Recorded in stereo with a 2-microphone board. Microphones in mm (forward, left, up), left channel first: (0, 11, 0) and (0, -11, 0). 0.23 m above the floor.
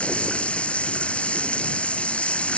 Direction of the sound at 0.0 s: 75° left (ahead or behind).